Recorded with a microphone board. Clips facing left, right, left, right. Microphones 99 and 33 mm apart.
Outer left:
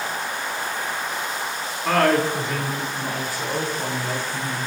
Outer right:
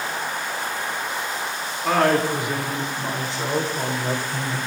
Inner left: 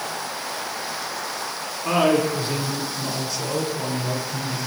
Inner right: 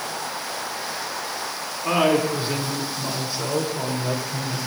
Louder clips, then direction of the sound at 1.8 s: Even, even; 5° right (ahead or behind).